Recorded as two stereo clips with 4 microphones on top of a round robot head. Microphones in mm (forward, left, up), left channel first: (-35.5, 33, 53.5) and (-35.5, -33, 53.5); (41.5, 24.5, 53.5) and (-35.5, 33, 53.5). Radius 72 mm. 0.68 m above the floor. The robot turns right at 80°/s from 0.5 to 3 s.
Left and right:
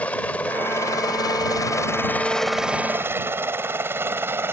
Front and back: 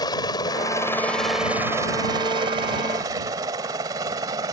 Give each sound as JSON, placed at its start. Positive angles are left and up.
{"t": 0.0, "sound": "a helicopter", "azimuth_deg": 20}